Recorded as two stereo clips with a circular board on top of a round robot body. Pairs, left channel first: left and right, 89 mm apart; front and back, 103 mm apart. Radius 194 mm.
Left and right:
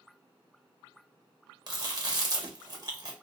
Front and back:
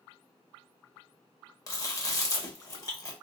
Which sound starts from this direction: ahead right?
Chewing, at 1.7 s.